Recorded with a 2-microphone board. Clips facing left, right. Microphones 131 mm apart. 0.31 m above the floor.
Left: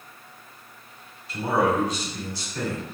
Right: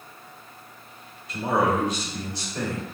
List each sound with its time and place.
1.3 s a man speaking: 20° right (ahead or behind), 1.3 m